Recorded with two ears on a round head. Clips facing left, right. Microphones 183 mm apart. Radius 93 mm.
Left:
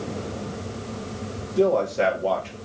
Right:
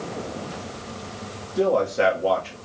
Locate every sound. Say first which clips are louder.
1.6 s a man speaking: even; 5° right (ahead or behind), 1.3 m